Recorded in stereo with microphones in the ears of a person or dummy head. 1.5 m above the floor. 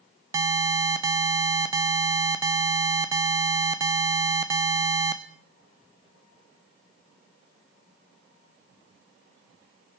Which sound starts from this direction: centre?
An alarm, at 0.3 s.